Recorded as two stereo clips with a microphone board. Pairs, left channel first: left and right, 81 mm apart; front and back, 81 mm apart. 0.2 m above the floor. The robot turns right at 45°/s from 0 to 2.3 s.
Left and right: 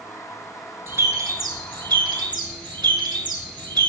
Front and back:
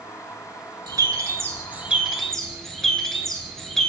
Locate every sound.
0.9 s a bird: 150° right, 0.5 m; by 3.9 s 85° right, 0.5 m